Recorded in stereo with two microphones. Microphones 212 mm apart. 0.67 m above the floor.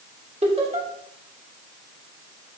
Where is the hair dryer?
I don't hear a hair dryer.